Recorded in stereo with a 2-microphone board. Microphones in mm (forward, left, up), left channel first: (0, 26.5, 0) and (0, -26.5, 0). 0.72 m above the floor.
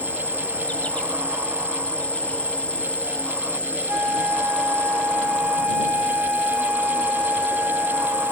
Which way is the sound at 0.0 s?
25° left (ahead or behind).